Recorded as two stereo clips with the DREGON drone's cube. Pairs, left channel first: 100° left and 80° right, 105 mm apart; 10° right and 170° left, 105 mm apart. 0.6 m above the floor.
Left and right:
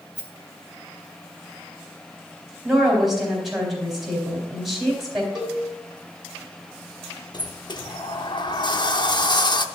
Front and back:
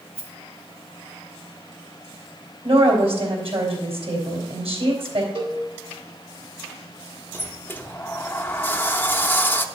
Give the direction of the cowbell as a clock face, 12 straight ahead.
5 o'clock.